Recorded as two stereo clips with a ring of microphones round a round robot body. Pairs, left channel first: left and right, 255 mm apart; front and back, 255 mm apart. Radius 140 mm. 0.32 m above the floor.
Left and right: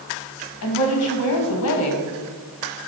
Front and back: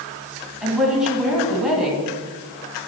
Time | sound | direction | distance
0.6 | a woman speaking | 95° left | 2.5 m